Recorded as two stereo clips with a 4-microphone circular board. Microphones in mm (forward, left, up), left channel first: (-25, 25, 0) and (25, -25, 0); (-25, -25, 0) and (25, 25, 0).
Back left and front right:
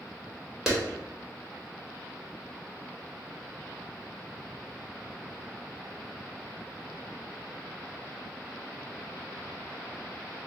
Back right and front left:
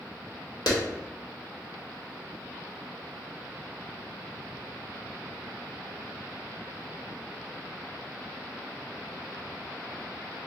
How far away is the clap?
About 1.1 m.